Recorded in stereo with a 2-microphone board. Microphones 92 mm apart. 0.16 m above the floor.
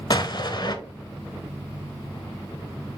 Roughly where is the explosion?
Left.